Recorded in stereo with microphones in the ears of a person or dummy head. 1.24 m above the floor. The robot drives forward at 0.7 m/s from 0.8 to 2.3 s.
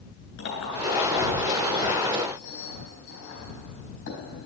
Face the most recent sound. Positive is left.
turn(degrees=70)  # may be behind; listen again after turning